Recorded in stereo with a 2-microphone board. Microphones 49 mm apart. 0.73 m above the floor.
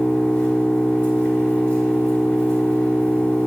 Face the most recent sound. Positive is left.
turn(degrees=45)  # may be behind; listen again after turning